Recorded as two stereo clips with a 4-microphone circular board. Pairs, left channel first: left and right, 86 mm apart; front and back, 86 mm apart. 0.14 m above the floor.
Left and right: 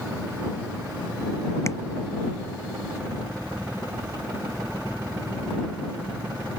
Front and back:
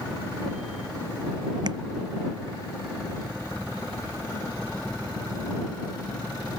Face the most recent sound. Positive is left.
turn(degrees=145)